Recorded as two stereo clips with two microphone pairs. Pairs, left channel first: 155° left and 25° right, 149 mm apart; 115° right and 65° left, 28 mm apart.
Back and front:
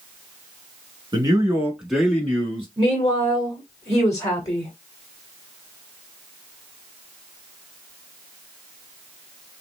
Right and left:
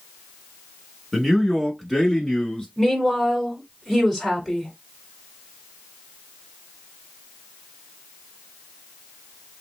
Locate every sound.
1.1 s a man speaking: straight ahead, 1.2 m; by 2.7 s 165° right, 1.2 m
2.8 s a woman speaking: 140° left, 1.5 m